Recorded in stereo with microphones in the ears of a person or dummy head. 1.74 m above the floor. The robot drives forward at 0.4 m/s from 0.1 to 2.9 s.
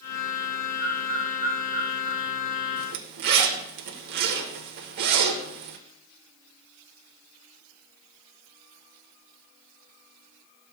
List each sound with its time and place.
0.8 s a bird: 20° right (ahead or behind), 2.5 m; by 2.2 s 25° right (ahead or behind), 2 m
2.8 s a zipper: 60° right (ahead or behind), 1.1 m; by 5.8 s 55° right (ahead or behind), 1.1 m